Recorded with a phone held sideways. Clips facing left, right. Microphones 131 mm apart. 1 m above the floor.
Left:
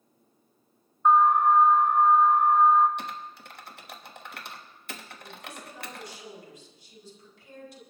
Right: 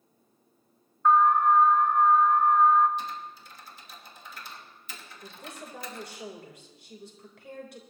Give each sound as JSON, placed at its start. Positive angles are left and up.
{"t": 1.1, "sound": "an alarm", "side_deg": 20, "distance_m": 1.3}
{"t": 3.0, "sound": "typing on a keyboard", "side_deg": 65, "distance_m": 1.2}
{"t": 5.2, "sound": "a woman speaking", "side_deg": -65, "distance_m": 3.5}